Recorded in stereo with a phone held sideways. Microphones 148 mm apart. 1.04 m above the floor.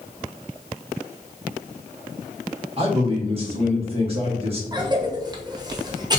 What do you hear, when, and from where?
2.8 s a man speaking: 40° right (ahead or behind), 1.0 m
4.7 s a cough: 25° right (ahead or behind), 0.6 m